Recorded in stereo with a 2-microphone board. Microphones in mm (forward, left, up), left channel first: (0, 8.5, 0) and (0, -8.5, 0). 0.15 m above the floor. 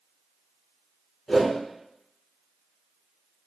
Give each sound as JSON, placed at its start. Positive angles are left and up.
{"t": 1.3, "sound": "a whoosh", "side_deg": 15, "distance_m": 1.2}